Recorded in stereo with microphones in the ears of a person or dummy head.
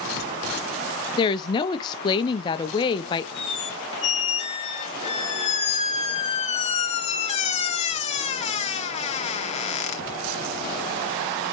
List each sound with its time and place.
1.2 s a woman speaking: 25° left (ahead or behind), 0.7 m
3.4 s a squeak: 35° left (ahead or behind), 1.0 m